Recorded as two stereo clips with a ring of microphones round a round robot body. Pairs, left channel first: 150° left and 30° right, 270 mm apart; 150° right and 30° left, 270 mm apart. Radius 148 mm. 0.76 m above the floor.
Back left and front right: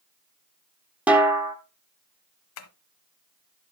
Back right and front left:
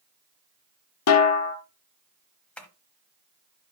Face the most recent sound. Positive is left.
turn(degrees=125)